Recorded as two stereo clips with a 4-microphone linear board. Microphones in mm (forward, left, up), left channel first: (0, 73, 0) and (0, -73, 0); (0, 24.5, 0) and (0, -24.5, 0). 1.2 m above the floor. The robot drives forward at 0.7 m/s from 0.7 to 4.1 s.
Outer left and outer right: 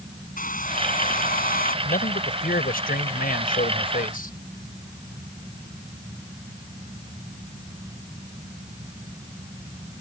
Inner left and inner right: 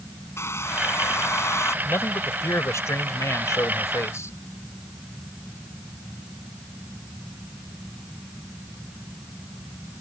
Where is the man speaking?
85° left; by 4.4 s 75° left (ahead or behind).